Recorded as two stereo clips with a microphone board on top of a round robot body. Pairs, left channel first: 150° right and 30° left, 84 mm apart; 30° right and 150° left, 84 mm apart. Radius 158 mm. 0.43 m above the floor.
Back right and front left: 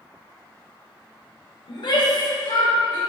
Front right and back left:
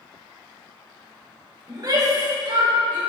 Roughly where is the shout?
Behind.